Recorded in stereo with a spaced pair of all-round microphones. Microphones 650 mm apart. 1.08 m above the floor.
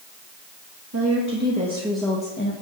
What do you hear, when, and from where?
0.9 s a woman speaking: 25° right (ahead or behind), 1.9 m; by 2.5 s 20° left (ahead or behind), 1.2 m